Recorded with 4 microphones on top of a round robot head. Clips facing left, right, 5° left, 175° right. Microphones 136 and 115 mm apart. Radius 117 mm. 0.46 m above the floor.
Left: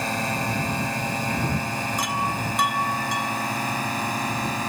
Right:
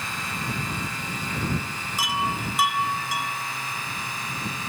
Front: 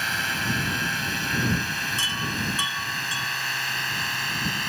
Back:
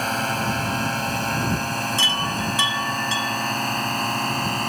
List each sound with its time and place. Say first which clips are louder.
0.0 s a drone: left 7 dB, back 6 dB; 140° left
2.0 s a chime: right 3 dB, back 5 dB; 175° right